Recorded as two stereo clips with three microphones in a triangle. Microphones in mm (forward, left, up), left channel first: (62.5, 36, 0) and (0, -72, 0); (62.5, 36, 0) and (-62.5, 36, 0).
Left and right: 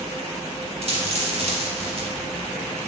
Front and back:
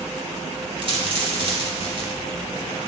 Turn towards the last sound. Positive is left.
turn(degrees=-140)